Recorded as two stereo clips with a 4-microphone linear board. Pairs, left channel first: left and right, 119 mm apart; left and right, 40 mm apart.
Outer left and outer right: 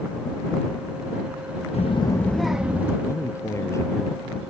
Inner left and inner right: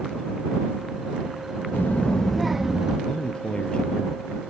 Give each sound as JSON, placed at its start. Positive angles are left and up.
{"t": 1.7, "sound": "a child speaking", "side_deg": 70}
{"t": 3.1, "sound": "a man speaking", "side_deg": 25}